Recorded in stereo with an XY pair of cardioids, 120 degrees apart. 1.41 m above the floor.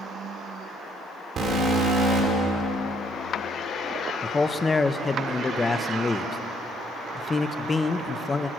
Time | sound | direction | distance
1.4 | an alarm | 50° right | 4.5 m
4.2 | a man speaking | 20° left | 0.9 m